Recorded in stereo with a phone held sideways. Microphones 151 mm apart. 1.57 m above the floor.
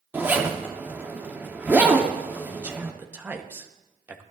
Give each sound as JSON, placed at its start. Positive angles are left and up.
{"t": 0.1, "sound": "a zipper", "side_deg": -10, "distance_m": 0.9}
{"t": 2.5, "sound": "a man speaking", "side_deg": -10, "distance_m": 0.9}